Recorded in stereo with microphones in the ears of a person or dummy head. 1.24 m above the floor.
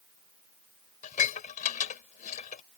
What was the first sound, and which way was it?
Dishes clattering, 45° left (ahead or behind).